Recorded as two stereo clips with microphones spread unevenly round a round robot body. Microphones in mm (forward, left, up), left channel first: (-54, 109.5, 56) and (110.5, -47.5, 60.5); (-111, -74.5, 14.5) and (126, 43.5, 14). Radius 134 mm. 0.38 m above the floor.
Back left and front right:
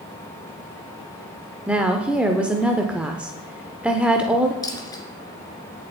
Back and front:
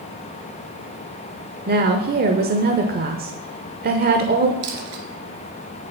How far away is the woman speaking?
About 1.0 m.